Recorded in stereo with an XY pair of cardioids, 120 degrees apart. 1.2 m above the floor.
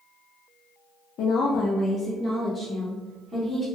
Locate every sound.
1.2 s a woman speaking: 65° left, 0.5 m; by 3.7 s 25° right, 1.2 m